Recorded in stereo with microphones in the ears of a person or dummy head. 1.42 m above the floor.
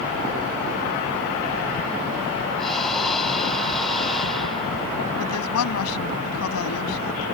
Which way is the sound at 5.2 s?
80° left.